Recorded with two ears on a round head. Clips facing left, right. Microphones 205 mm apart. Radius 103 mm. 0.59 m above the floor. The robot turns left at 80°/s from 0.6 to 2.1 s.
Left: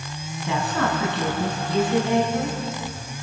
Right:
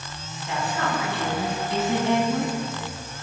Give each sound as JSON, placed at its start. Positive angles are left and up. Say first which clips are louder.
{"t": 0.5, "sound": "a woman speaking", "louder": "left 3 dB", "azimuth_deg": 65, "distance_m": 6.0}